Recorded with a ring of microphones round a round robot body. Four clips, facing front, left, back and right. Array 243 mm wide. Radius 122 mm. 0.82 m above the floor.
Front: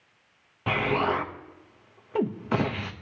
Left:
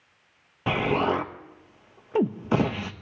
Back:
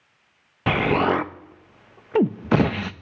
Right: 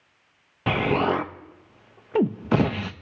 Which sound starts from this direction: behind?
An explosion, at 0.7 s.